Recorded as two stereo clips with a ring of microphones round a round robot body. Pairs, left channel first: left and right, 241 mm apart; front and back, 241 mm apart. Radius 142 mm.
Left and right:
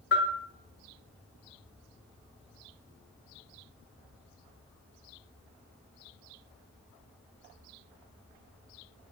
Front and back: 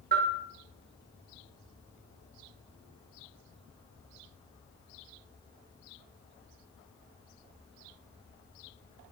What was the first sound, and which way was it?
A bell, 130° left.